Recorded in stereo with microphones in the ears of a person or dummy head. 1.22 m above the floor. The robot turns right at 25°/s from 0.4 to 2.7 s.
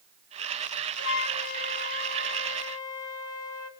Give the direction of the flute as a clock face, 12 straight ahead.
8 o'clock.